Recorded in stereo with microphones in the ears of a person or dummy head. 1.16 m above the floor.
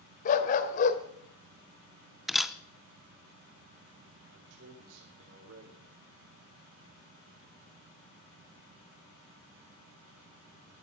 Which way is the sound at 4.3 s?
75° right (ahead or behind).